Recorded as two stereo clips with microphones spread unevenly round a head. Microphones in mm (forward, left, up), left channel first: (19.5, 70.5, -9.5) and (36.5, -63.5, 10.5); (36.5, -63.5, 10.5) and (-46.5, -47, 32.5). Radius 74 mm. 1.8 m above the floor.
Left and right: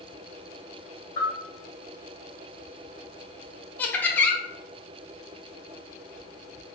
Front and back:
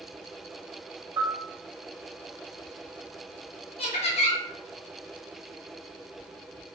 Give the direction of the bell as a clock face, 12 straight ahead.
8 o'clock.